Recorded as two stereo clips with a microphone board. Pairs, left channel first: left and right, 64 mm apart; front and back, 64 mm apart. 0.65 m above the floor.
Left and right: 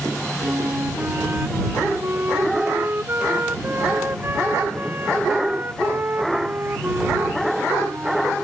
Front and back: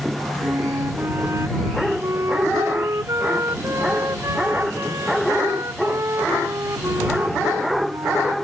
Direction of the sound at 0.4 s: 145° right.